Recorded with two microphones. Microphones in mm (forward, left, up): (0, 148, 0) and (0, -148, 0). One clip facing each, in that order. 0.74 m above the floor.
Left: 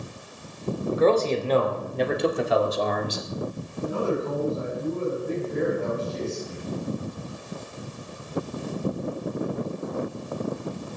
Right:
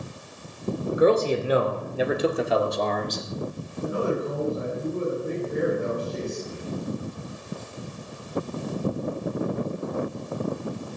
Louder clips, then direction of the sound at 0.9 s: Right 1 dB; 15° right (ahead or behind).